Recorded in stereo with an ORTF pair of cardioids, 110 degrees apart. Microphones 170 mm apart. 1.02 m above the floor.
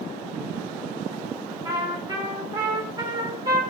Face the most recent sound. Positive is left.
turn(degrees=-25)